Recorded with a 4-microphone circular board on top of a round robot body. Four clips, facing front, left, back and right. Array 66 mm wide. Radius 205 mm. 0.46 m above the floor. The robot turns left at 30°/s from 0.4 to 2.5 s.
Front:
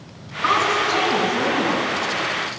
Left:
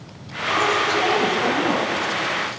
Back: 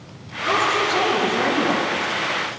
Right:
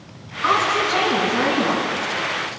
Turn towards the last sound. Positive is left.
turn(degrees=-105)